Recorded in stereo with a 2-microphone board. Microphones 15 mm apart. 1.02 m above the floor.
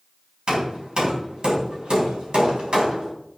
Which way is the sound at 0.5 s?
55° right (ahead or behind).